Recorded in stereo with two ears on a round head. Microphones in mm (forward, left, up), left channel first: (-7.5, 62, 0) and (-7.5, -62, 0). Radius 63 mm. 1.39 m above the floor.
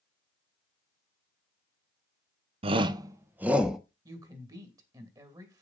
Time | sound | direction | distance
2.6 | a shout | 45° right (ahead or behind) | 0.9 m
4.0 | a woman speaking | 30° right (ahead or behind) | 2.5 m